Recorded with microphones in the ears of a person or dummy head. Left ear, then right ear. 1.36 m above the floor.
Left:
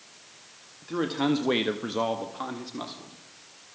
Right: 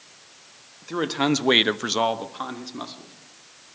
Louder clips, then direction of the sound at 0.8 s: Right 3 dB; 35° right (ahead or behind).